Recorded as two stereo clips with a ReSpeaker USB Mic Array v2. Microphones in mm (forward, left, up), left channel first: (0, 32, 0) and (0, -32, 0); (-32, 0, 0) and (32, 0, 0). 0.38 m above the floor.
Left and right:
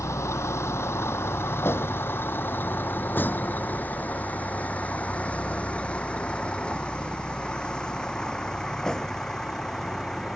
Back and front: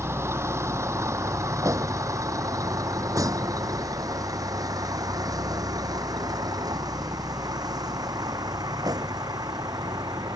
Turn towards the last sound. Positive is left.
turn(degrees=10)